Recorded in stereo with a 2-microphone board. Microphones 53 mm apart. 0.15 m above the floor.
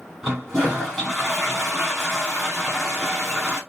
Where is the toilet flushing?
5° right (ahead or behind), 3 m.